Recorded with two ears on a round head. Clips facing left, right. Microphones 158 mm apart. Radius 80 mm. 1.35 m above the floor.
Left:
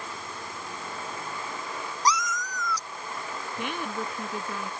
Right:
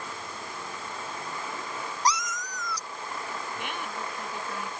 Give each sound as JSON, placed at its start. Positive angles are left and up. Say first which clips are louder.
{"t": 2.0, "sound": "a cat meowing", "louder": "left 2 dB", "side_deg": 70}
{"t": 3.6, "sound": "a woman speaking", "louder": "left 3 dB", "side_deg": 65}